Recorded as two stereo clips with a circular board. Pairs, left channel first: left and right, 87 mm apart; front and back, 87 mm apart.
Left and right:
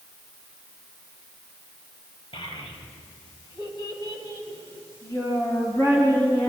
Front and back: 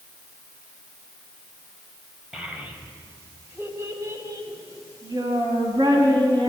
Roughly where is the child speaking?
Left.